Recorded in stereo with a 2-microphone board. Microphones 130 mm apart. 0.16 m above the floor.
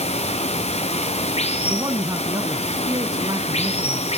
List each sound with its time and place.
0.0 s running water: 50° left (ahead or behind), 1.6 m
1.7 s a man speaking: 25° right (ahead or behind), 1.1 m